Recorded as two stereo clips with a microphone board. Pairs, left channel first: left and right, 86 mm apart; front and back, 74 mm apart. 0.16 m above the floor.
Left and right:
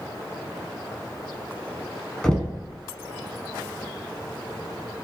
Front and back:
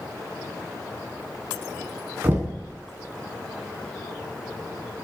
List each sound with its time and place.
2.2 s knocking: 160° left, 0.8 m